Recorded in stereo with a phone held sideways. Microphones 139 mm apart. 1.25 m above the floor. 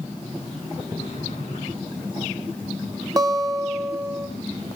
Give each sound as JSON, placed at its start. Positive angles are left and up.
{"t": 1.0, "sound": "a sliding door", "side_deg": 50, "distance_m": 9.5}
{"t": 3.2, "sound": "a guitar", "side_deg": -25, "distance_m": 1.0}